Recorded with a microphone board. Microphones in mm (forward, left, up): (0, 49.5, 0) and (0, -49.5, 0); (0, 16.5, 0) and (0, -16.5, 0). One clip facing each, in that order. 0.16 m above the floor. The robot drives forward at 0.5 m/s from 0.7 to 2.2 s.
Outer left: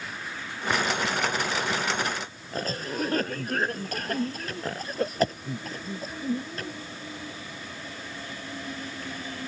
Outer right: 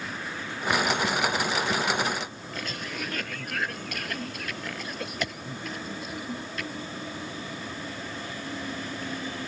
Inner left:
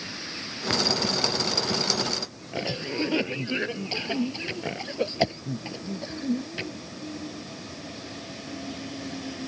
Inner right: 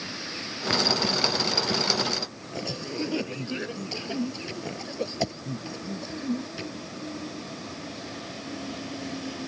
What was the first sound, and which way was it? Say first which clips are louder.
A cough: outer left 6 dB, inner left 4 dB; 35° left (ahead or behind).